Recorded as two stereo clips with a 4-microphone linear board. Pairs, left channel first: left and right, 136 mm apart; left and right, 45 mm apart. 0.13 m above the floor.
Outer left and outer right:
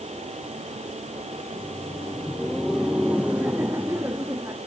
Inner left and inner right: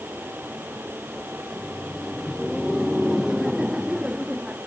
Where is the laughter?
15° left (ahead or behind); by 4.6 s 20° right (ahead or behind).